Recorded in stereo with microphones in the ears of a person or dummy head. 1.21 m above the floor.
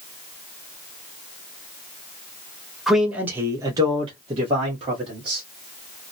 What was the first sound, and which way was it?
A man speaking, centre (ahead or behind).